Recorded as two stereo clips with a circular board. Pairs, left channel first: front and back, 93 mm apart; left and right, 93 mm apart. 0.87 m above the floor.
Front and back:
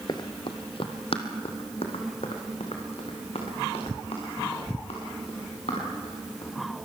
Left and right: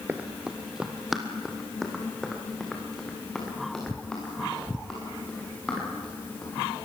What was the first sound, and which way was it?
Running footsteps, 25° right.